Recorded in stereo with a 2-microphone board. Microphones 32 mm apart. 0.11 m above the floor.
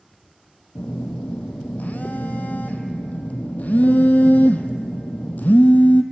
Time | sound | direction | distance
0.8 | a phone buzzing | 60° left (ahead or behind) | 0.5 m